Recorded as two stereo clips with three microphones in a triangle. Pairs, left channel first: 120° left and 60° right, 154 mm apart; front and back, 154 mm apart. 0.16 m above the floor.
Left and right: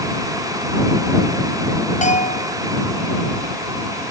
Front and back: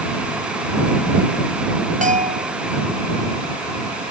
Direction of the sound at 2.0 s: 155° left.